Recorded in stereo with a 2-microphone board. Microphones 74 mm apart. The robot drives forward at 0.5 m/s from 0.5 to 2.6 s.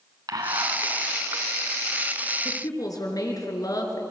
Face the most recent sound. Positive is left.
turn(degrees=50)  # may be behind; listen again after turning